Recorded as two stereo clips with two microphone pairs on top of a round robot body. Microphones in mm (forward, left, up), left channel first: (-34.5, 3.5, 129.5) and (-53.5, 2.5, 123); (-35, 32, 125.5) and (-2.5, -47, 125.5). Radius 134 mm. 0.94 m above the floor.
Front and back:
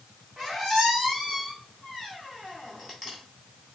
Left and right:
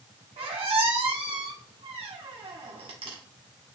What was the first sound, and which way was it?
A squeak, 70° right.